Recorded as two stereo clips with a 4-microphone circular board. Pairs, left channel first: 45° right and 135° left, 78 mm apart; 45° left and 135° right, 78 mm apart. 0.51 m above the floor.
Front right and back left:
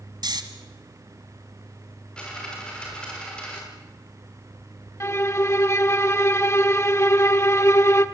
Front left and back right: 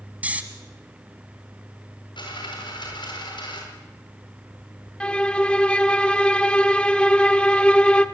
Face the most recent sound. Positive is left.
turn(degrees=-25)